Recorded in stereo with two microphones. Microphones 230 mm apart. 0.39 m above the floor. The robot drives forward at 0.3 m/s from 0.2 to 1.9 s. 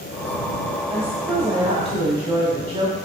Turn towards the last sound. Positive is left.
turn(degrees=-25)  # may be behind; listen again after turning